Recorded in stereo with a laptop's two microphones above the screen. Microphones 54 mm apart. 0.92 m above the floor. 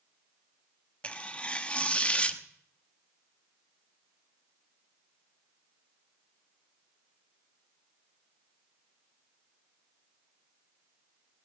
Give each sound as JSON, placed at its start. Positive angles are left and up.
{"t": 1.0, "sound": "tearing paper", "side_deg": 25, "distance_m": 0.8}